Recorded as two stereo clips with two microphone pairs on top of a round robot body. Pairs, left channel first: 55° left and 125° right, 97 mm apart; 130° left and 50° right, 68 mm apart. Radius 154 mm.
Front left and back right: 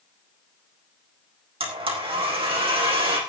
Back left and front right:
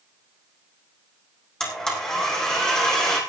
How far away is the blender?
About 5.5 m.